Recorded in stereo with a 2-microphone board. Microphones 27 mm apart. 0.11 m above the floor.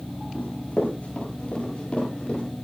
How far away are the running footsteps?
About 9.5 m.